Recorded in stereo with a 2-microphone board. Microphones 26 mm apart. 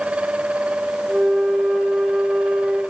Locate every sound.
1.1 s a flute: 45° right (ahead or behind), 2 m